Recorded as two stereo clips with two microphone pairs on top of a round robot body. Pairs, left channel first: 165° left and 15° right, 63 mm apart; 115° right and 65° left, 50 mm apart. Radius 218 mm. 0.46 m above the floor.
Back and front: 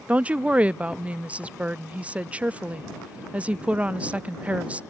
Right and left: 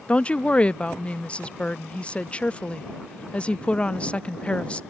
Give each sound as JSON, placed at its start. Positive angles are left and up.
{"t": 0.1, "sound": "a woman speaking", "azimuth_deg": -60}